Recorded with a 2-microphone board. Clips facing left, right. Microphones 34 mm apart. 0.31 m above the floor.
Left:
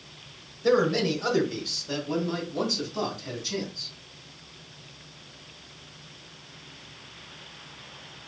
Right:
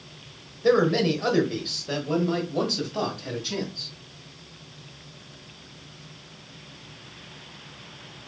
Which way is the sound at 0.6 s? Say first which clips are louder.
Right 2 dB; 15° right (ahead or behind).